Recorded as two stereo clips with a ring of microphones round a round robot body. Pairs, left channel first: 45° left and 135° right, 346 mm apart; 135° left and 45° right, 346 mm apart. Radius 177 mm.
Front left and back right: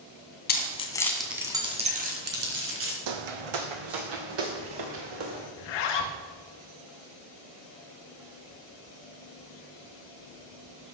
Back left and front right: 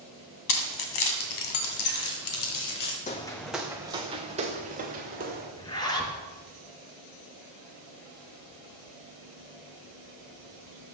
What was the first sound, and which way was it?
Keys jangling, 110° left.